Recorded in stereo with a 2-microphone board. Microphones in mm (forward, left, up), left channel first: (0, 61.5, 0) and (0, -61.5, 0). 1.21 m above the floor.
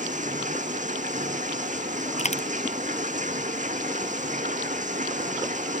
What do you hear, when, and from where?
0.0 s running water: 90° right
2.2 s a dropped coin: 65° left (ahead or behind)